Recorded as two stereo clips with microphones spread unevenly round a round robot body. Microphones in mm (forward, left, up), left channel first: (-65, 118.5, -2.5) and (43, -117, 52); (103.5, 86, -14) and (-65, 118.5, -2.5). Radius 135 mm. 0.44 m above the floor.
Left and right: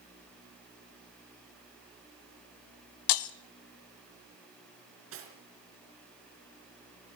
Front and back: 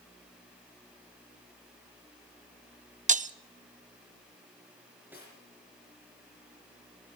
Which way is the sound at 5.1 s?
105° right.